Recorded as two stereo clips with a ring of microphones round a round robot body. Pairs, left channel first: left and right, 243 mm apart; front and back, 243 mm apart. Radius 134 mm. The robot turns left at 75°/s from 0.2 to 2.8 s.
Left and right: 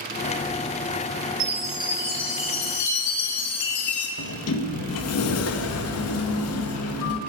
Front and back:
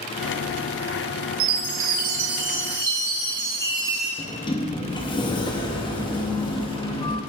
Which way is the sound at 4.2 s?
70° left.